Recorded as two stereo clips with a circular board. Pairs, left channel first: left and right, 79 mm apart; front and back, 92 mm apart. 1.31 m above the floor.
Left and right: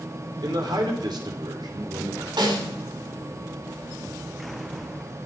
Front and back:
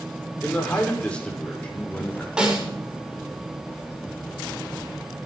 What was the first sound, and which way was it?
A man speaking, 75° right.